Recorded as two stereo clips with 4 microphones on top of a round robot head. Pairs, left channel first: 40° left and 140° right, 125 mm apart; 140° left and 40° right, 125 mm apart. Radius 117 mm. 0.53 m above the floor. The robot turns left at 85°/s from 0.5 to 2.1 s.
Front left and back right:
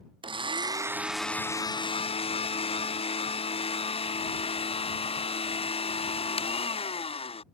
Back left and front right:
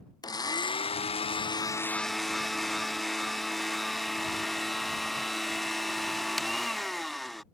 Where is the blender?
170° right; by 7.4 s 50° left.